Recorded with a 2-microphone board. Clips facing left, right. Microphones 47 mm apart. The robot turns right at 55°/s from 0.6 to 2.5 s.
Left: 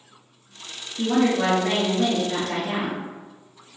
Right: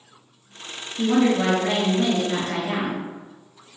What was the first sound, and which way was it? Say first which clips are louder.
A woman speaking: right 1 dB; 5° left (ahead or behind).